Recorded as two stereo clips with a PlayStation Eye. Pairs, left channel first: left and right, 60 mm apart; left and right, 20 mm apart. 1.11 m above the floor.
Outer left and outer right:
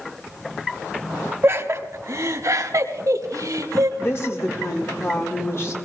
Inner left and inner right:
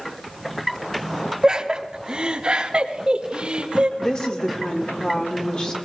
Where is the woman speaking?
50° left (ahead or behind), 1.9 m.